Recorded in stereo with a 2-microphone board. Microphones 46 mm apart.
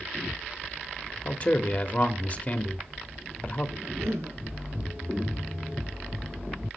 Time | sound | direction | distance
1.2 | a man speaking | 35° left (ahead or behind) | 0.9 m
3.8 | a cough | 80° right | 5.5 m